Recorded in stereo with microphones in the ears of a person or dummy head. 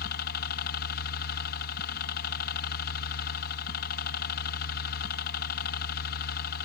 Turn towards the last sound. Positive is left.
turn(degrees=55)  # may be behind; listen again after turning